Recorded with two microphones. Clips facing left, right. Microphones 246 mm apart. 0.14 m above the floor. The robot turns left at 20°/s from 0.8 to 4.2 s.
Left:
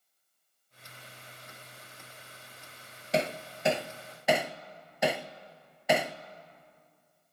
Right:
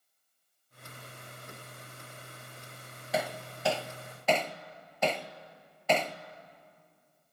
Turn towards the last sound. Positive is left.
turn(degrees=10)  # may be behind; listen again after turning